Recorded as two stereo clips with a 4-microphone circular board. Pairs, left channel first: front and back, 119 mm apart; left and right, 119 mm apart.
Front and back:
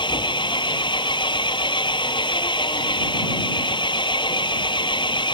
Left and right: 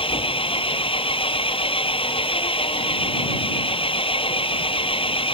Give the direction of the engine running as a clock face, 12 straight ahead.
10 o'clock.